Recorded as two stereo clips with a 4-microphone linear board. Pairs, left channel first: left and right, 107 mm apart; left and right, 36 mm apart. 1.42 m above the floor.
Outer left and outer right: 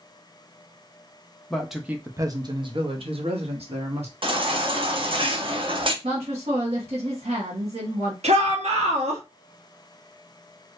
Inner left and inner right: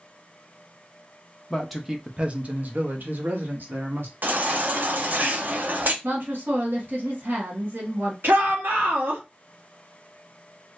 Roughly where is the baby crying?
Right.